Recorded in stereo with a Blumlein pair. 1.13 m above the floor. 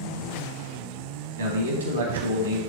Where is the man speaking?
65° right, 1.3 m.